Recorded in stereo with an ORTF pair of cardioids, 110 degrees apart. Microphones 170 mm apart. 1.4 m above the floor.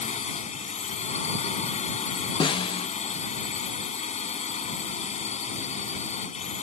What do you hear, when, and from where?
0.0 s a drone: 40° left
2.4 s a snare drum: 30° left